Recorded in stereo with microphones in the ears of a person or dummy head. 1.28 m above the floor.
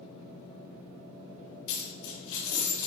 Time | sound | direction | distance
1.7 | a dropped coin | 65° left (ahead or behind) | 1.1 m